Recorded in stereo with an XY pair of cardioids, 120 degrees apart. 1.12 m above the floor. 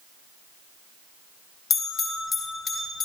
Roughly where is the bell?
Ahead left.